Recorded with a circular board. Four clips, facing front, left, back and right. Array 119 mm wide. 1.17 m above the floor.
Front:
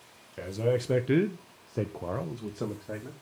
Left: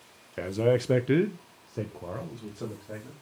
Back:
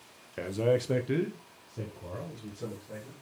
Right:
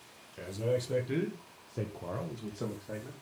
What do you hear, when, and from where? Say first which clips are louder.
0.4 s a man speaking: left 8 dB, back 1 dB; 115° left, 0.9 m; by 3.1 s 10° right, 1.7 m